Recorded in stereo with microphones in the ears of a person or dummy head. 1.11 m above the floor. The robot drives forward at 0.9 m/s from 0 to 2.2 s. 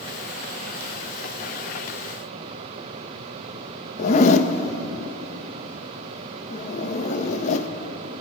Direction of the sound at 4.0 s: 40° left (ahead or behind).